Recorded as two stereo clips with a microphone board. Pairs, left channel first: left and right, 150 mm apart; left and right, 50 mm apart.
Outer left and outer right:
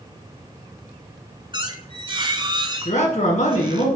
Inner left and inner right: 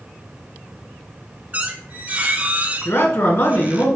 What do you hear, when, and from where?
1.5 s a squeak: 30° right (ahead or behind), 0.9 m
2.9 s a man speaking: 55° left (ahead or behind), 1.6 m